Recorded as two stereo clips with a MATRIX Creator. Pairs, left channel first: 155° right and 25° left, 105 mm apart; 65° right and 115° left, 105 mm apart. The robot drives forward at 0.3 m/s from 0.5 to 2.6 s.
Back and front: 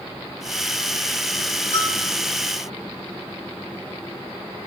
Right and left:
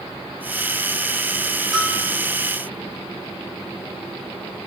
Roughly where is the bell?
Behind.